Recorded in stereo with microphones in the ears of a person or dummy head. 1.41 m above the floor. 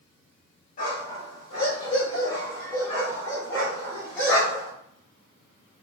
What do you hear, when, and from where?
0.8 s a dog barking: 40° left (ahead or behind), 1.7 m; by 4.7 s 5° left (ahead or behind), 3.5 m